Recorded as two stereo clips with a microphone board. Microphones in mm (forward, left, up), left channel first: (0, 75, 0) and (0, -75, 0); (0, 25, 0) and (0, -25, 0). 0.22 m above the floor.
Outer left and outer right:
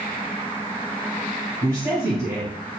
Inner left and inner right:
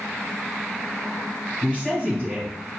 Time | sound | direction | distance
1.6 | a woman speaking | 20° right (ahead or behind) | 1.3 m